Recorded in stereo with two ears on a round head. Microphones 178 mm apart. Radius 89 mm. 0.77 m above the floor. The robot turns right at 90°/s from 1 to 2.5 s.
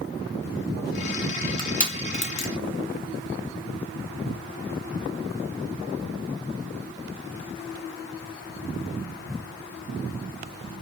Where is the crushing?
25° left (ahead or behind), 0.9 m; by 2.5 s 60° left (ahead or behind), 0.9 m.